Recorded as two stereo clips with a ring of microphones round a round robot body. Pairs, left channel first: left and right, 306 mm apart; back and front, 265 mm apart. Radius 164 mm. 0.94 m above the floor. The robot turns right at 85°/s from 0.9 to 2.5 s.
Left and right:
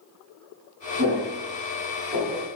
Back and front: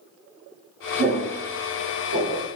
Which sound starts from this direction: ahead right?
Footsteps, at 1.0 s.